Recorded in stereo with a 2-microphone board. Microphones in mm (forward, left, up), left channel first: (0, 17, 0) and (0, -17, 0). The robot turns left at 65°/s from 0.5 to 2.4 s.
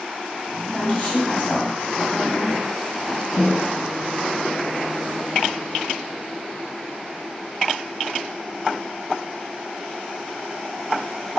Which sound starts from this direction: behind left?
A woman speaking, at 0.6 s.